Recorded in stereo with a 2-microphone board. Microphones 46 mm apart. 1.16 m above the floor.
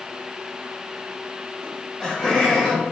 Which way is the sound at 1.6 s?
20° left (ahead or behind).